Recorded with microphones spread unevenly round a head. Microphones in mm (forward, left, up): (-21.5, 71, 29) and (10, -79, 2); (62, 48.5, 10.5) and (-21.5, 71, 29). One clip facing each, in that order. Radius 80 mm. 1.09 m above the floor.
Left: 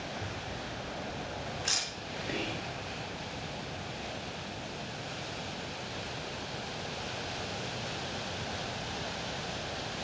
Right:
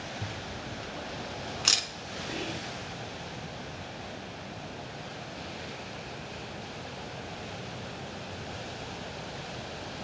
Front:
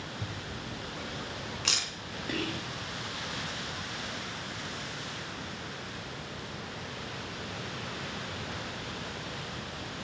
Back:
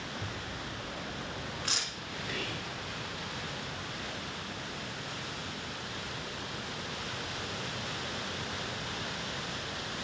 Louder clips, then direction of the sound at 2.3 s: Even, front 6 dB; 25° left.